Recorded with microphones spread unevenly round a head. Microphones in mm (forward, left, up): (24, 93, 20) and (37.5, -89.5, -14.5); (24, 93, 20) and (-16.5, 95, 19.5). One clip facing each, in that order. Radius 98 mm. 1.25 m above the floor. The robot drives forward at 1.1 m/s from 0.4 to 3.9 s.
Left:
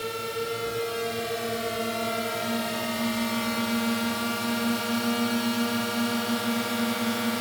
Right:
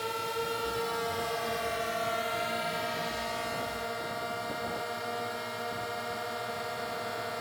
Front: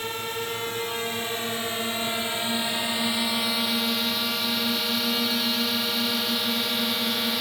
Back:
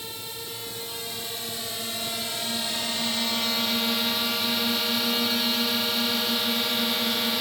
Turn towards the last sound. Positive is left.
turn(degrees=85)